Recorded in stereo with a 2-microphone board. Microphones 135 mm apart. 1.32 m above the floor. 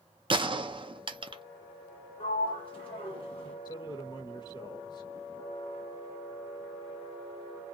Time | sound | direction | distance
0.3 | a gunshot | 40° right (ahead or behind) | 0.5 m
2.2 | a sliding door | 40° left (ahead or behind) | 1.4 m
3.6 | a man speaking | 35° left (ahead or behind) | 0.7 m